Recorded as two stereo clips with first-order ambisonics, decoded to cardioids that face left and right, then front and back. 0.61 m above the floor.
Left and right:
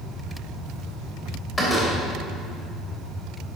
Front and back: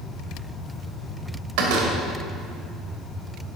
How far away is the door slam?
About 2 m.